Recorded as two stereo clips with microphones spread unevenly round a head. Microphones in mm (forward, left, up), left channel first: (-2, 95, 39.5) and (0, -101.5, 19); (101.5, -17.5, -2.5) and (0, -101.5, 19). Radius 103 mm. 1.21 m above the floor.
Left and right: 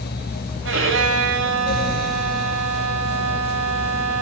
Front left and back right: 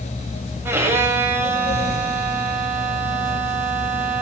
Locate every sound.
0.7 s a violin: 70° right, 8 m